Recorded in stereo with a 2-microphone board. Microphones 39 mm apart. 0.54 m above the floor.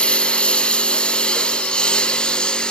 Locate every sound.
0.0 s a lawn mower: 25° left (ahead or behind); by 2.7 s 20° left (ahead or behind)